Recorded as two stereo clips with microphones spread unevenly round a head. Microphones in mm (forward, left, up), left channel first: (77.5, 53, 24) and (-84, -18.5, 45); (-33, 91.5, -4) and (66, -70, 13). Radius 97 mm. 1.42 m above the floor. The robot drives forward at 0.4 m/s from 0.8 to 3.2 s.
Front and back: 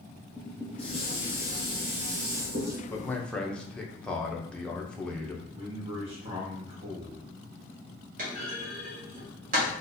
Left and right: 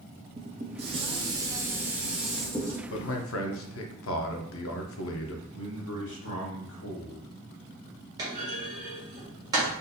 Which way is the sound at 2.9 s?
100° left.